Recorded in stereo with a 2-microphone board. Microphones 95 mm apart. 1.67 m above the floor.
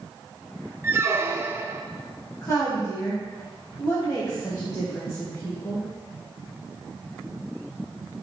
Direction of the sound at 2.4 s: 40° left (ahead or behind).